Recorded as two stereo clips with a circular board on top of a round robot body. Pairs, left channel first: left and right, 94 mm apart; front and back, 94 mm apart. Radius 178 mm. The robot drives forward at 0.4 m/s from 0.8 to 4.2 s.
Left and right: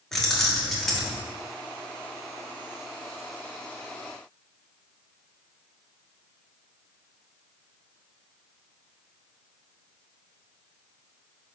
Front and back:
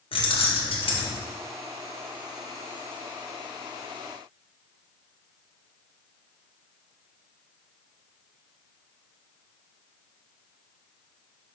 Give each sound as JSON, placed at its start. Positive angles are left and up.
{"t": 0.1, "sound": "keys jangling", "azimuth_deg": 5, "distance_m": 1.4}